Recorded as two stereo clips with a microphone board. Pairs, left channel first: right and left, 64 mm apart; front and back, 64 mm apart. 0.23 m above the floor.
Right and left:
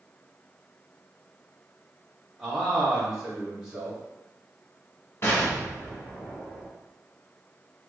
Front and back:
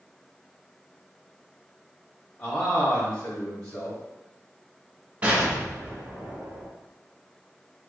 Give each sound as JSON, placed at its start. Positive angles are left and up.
{"t": 2.4, "sound": "a man speaking", "azimuth_deg": 35, "distance_m": 1.5}
{"t": 5.2, "sound": "an explosion", "azimuth_deg": -120, "distance_m": 1.6}